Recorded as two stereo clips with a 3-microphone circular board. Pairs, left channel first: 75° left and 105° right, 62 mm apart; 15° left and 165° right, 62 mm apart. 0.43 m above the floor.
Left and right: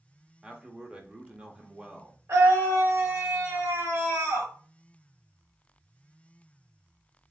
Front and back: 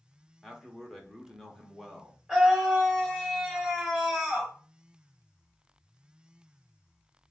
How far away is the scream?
About 2.5 m.